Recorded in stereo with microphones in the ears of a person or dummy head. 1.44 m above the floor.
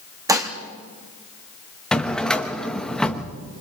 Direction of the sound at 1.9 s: Centre (ahead or behind).